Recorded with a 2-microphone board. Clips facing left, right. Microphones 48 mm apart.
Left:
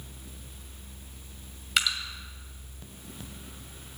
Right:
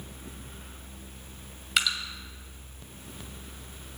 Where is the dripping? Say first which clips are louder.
Even; centre (ahead or behind), 2 m.